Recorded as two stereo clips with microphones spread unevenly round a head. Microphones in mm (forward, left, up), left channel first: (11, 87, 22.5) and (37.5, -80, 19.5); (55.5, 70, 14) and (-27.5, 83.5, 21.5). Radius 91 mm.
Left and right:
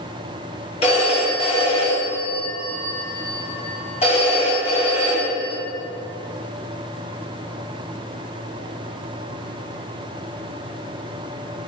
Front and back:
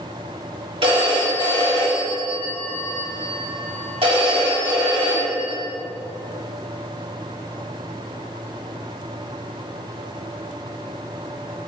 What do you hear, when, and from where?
0.8 s a phone ringing: 160° left, 2.5 m